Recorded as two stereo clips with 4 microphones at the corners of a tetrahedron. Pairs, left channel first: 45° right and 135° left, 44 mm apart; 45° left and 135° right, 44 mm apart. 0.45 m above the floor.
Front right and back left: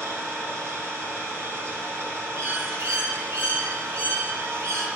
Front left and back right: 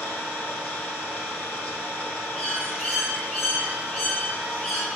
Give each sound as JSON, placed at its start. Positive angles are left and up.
{"t": 0.0, "sound": "an engine running", "azimuth_deg": 110, "distance_m": 4.5}
{"t": 2.4, "sound": "a bird", "azimuth_deg": 120, "distance_m": 4.5}